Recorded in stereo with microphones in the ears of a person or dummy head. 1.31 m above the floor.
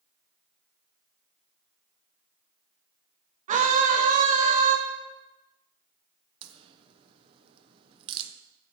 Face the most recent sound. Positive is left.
turn(degrees=-30)  # may be behind; listen again after turning